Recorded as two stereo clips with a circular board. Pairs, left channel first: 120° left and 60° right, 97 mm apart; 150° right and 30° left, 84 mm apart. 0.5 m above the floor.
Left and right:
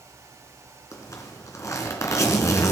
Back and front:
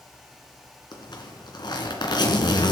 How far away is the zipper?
About 3 m.